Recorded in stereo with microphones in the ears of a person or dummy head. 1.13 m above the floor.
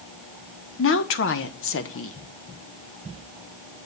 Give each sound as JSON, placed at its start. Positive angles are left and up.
{"t": 0.8, "sound": "a woman speaking", "side_deg": 55, "distance_m": 1.0}